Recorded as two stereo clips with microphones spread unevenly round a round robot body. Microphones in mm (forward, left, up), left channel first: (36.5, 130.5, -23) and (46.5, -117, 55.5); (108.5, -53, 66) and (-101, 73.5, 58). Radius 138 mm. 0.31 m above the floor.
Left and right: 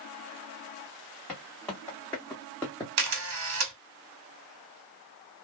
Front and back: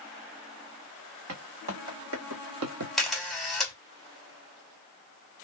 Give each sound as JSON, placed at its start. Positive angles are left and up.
{"t": 1.3, "sound": "footsteps", "azimuth_deg": 180, "distance_m": 1.7}
{"t": 3.0, "sound": "a camera shutter", "azimuth_deg": -120, "distance_m": 1.7}